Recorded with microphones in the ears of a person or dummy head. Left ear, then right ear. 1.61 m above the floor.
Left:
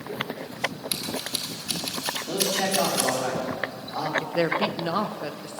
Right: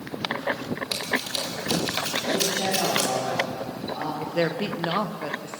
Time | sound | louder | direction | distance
0.9 | scissors | right 3 dB | centre (ahead or behind) | 2 m
2.3 | a man speaking | left 1 dB | 60° left (ahead or behind) | 5.5 m
4.2 | a woman speaking | left 1 dB | 5° left (ahead or behind) | 1.0 m